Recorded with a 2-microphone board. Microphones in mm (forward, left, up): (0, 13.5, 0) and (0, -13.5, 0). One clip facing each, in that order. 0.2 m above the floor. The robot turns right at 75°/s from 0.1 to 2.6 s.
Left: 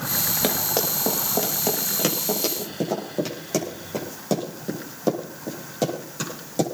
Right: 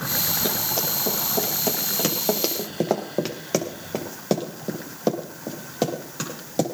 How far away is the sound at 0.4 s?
About 7 m.